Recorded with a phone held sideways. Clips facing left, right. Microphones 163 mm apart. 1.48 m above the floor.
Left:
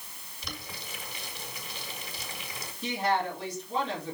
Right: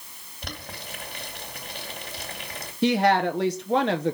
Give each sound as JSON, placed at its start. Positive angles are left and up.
{"t": 0.4, "sound": "boiling", "side_deg": -65, "distance_m": 2.0}
{"t": 2.8, "sound": "a woman speaking", "side_deg": -75, "distance_m": 0.8}